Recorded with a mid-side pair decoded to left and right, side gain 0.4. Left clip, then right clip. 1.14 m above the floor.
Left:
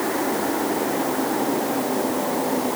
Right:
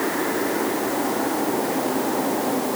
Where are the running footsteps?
No running footsteps in this recording.